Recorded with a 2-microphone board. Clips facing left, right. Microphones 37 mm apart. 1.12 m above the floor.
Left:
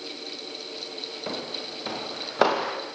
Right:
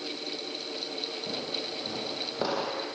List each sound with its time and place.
1.3 s footsteps: 65° left (ahead or behind), 6.5 m; by 2.8 s 80° left, 7.5 m